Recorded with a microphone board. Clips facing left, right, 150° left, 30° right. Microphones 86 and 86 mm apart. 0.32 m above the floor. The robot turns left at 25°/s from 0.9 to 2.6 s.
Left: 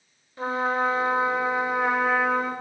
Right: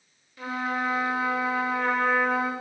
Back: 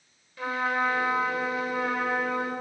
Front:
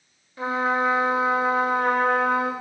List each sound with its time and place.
0.4 s a trumpet: 35° left, 8 m; by 2.5 s 10° right, 8 m